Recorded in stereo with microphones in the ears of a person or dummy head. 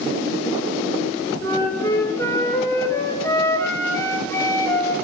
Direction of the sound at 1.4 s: 20° left (ahead or behind).